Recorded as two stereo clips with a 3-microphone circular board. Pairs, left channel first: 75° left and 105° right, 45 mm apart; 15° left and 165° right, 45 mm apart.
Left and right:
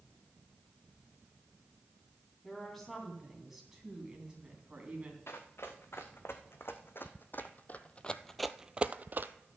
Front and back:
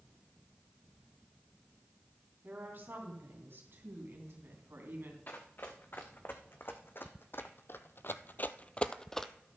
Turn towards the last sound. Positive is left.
turn(degrees=-70)